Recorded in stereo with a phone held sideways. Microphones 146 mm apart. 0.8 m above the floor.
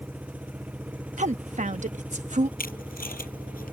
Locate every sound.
0.0 s an engine running: 10° right (ahead or behind)
1.2 s a woman speaking: 55° right (ahead or behind)
2.6 s tape being pulled: 85° left